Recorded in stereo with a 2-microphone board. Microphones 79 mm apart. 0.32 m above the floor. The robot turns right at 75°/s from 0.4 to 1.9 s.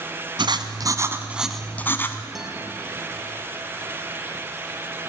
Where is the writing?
85° right, 1.4 m; by 2.2 s 25° left, 1.4 m.